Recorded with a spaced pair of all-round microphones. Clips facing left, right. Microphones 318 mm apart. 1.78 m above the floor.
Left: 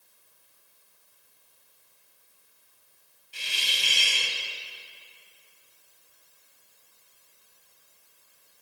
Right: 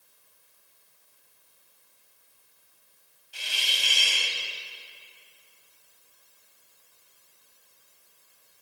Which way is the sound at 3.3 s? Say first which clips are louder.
Even; 30° left (ahead or behind).